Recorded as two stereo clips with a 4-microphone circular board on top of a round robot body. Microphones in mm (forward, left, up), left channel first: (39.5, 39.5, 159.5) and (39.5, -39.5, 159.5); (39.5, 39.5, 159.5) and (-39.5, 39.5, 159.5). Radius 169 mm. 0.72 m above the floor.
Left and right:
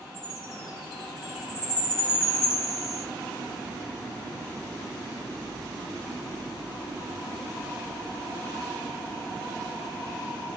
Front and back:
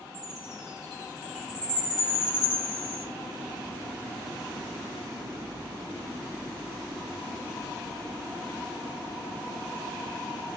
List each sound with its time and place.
0.1 s a chime: 105° left, 0.6 m